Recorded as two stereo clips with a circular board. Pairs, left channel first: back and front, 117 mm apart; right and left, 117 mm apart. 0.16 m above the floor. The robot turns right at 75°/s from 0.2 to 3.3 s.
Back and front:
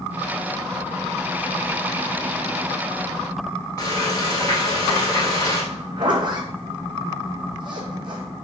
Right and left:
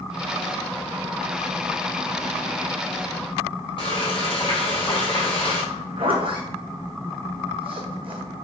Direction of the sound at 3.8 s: 130° right.